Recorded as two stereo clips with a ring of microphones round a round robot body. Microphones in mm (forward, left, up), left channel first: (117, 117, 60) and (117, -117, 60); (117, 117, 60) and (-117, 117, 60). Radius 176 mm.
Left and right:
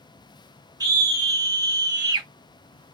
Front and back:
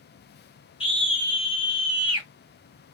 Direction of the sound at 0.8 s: 35° right.